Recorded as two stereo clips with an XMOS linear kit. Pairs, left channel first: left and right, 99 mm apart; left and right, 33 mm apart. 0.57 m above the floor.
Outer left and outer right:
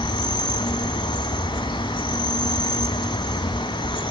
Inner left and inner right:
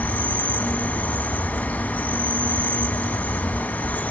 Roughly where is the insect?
Left.